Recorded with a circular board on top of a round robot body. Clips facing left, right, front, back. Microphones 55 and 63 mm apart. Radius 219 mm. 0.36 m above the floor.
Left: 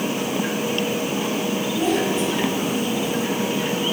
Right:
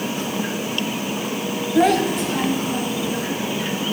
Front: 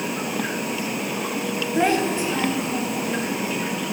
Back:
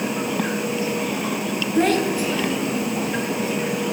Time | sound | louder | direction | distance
1.8 | a child speaking | right 6 dB, back 1 dB | 75° right | 1.9 m